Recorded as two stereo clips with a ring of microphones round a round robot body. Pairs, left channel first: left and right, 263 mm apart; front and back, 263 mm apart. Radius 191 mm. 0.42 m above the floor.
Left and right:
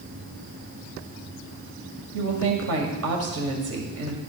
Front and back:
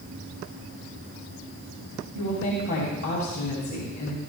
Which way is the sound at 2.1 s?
65° right.